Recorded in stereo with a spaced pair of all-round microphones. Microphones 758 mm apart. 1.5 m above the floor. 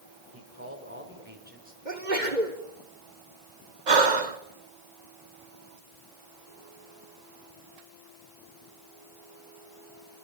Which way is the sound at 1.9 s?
75° right (ahead or behind).